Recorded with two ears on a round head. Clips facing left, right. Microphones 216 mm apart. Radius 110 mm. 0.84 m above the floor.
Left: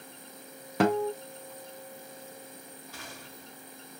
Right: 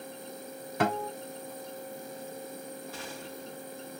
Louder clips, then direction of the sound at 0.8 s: Left 5 dB; 60° left (ahead or behind).